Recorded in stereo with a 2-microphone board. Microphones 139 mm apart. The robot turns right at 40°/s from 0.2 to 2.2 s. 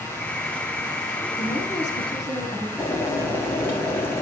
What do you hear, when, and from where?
1.4 s a woman speaking: 110° left, 4 m; by 2.7 s 140° left, 4 m
2.8 s boiling: 15° left (ahead or behind), 2 m